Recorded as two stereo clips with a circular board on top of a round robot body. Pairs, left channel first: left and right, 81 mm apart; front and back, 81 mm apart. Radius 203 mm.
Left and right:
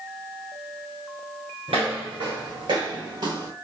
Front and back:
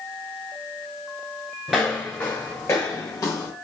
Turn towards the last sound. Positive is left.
turn(degrees=-55)